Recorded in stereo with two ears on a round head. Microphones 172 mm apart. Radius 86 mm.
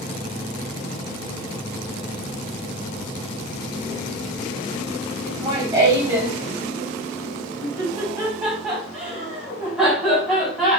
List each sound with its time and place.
5.2 s laughter: 20° right (ahead or behind), 4.5 m; by 10.8 s centre (ahead or behind), 7 m